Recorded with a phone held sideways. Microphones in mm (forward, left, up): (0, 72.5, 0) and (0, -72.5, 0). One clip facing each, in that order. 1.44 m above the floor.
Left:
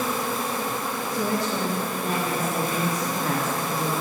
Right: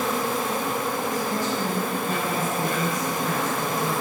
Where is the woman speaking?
75° left (ahead or behind), 3 m.